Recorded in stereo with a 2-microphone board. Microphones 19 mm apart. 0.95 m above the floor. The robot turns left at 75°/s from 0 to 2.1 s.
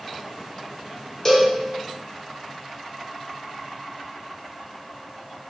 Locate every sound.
1.2 s a cowbell: 15° left (ahead or behind), 0.6 m; by 1.5 s 5° left (ahead or behind), 0.6 m